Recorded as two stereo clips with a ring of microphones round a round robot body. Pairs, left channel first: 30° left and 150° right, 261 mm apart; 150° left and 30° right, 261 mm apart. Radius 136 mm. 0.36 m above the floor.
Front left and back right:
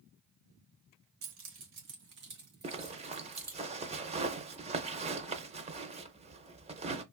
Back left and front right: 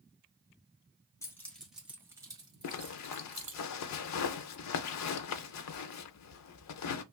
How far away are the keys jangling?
About 1.2 m.